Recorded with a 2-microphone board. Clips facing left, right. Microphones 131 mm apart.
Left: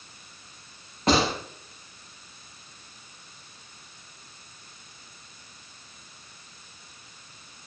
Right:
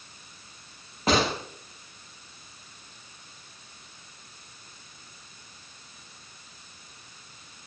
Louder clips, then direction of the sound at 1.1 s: Left 1 dB; 5° right (ahead or behind).